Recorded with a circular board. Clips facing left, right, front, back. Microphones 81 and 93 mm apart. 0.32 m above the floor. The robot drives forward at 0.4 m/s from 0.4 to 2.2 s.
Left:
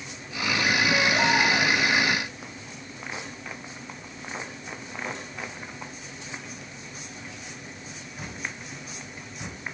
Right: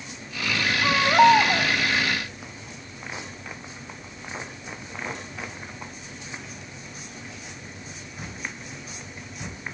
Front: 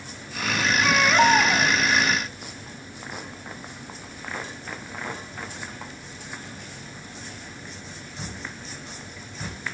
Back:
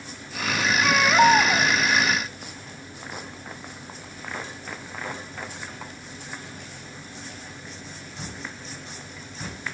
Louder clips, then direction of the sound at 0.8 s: Right 10 dB, back 2 dB; 95° right.